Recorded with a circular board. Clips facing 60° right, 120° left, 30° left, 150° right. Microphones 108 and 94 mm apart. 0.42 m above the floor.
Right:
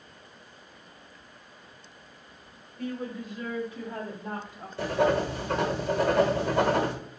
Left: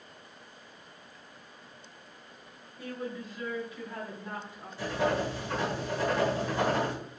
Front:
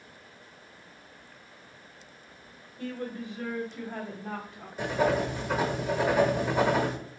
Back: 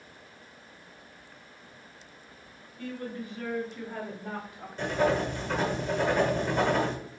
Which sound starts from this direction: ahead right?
Writing, at 4.8 s.